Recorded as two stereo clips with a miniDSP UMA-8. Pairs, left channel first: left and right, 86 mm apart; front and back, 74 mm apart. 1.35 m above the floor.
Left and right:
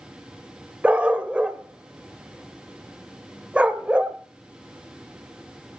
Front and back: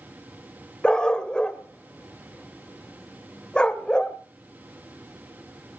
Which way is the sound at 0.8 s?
55° right.